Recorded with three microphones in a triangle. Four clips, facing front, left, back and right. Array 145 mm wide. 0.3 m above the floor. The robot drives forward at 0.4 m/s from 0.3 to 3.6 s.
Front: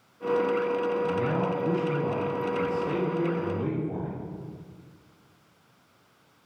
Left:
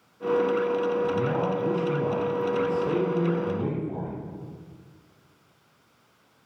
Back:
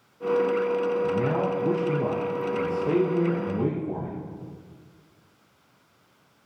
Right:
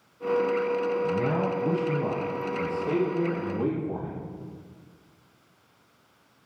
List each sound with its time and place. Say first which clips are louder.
1.0 s a man speaking: left 1 dB, back 2 dB; 175° left, 6.5 m